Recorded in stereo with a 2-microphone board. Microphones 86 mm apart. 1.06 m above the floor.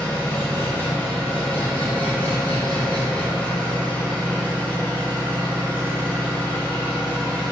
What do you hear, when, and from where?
0.0 s an engine running: 20° left (ahead or behind), 0.9 m